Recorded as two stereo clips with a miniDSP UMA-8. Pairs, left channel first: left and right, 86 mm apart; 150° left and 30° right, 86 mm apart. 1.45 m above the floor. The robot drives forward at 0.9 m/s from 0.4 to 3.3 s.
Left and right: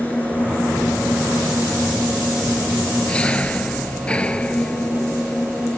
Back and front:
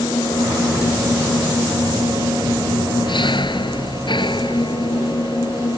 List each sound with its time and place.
0.0 s an engine running: 165° left